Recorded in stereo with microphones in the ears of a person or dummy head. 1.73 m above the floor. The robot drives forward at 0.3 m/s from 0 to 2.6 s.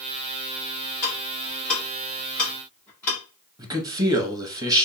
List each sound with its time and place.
1.0 s ticking: 10° left (ahead or behind), 1.4 m
3.6 s a man speaking: 20° right (ahead or behind), 0.9 m